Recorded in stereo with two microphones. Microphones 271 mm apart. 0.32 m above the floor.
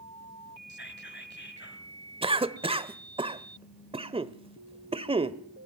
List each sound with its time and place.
0.7 s whispering: 40° left (ahead or behind), 2.5 m
2.2 s a cough: 20° right (ahead or behind), 0.9 m